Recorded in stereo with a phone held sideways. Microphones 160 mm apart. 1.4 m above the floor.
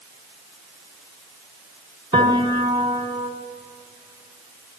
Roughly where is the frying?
No frying in this recording.